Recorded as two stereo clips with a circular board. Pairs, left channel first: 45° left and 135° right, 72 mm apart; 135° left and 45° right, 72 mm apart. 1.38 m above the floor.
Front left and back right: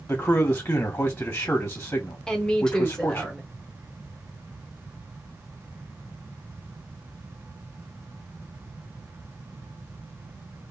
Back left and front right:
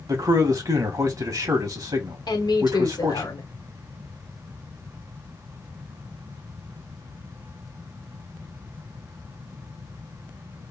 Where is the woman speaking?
125° left, 1.2 m.